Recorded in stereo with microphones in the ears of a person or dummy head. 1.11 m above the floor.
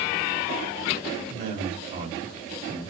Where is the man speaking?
55° right (ahead or behind), 3 m; by 2.9 s 50° right (ahead or behind), 1.9 m.